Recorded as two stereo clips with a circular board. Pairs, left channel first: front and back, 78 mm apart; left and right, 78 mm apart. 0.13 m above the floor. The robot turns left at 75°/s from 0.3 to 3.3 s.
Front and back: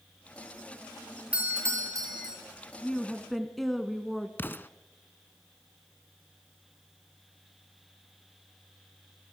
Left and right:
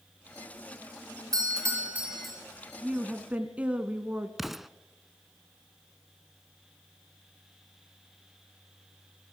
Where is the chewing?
I don't hear chewing.